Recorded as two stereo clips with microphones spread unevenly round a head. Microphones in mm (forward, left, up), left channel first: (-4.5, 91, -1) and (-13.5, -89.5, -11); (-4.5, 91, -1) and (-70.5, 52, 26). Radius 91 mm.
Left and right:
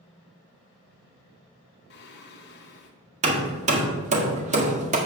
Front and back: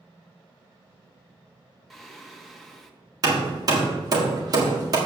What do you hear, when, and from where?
1.9 s singing: 120° left, 1.3 m
3.2 s hammering: 145° right, 1.6 m